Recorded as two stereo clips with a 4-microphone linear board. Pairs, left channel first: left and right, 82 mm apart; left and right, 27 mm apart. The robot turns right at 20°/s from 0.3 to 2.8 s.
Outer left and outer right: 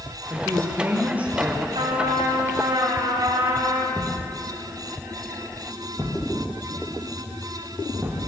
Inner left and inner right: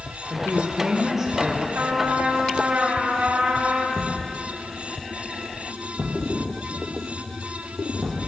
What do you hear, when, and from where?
0.3 s a woman speaking: 35° right (ahead or behind), 7 m; by 1.6 s 5° right (ahead or behind), 7 m
1.8 s a trumpet: 85° right, 8 m; by 3.8 s 65° right (ahead or behind), 8 m
3.9 s a thud: 25° right (ahead or behind), 7 m